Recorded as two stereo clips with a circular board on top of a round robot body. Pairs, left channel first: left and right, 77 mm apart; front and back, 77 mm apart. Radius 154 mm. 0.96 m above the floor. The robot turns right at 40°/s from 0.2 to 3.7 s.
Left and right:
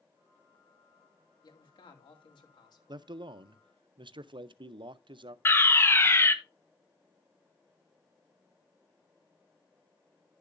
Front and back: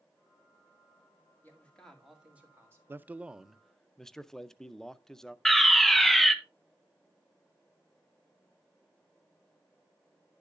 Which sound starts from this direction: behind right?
A man speaking, at 2.9 s.